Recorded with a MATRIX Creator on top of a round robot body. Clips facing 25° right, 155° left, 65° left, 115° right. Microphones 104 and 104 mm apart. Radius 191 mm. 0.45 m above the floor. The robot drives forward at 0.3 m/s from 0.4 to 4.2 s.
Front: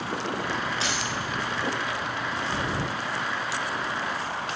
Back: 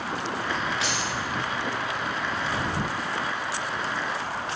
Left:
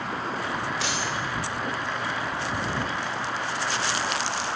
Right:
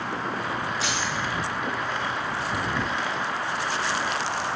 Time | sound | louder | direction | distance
0.8 | a dropped coin | back 1 dB, right 1 dB | 35° left | 0.5 m